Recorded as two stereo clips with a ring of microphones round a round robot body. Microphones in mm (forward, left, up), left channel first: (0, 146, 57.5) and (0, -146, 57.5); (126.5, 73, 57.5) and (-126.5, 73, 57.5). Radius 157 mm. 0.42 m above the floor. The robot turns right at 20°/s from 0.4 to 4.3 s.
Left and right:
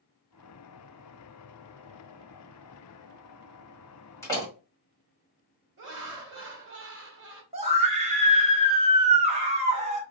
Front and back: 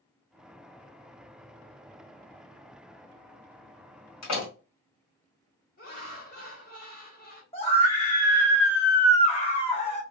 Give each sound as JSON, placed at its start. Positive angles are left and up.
{"t": 4.2, "sound": "a door slam", "azimuth_deg": 10, "distance_m": 1.6}
{"t": 5.8, "sound": "laughter", "azimuth_deg": -50, "distance_m": 1.5}
{"t": 7.5, "sound": "a scream", "azimuth_deg": -45, "distance_m": 1.0}